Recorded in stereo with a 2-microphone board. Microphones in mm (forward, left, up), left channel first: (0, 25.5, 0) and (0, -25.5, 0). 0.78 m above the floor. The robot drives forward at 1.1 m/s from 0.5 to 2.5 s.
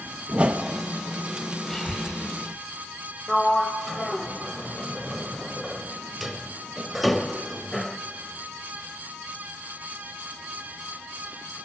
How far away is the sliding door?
About 0.8 m.